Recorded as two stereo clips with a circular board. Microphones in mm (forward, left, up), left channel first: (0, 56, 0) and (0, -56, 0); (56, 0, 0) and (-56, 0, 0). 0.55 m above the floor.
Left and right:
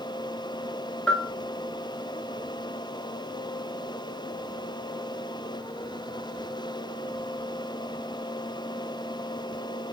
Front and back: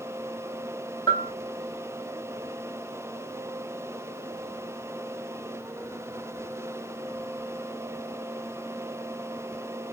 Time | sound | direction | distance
1.1 | a bell | 10° left | 1.0 m